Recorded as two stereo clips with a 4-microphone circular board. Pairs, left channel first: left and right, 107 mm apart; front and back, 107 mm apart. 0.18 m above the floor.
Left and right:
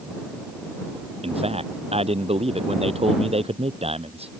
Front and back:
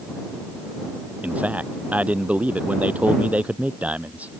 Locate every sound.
1.2 s a man speaking: 105° right